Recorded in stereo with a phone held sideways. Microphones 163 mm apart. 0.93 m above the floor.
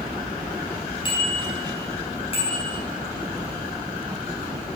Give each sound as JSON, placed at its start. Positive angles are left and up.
{"t": 1.1, "sound": "a bicycle bell", "side_deg": 30, "distance_m": 4.5}